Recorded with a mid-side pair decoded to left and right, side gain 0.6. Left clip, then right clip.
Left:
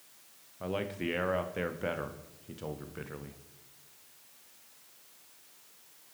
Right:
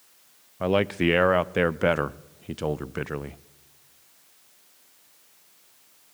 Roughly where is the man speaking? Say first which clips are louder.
Right 12 dB; ahead right.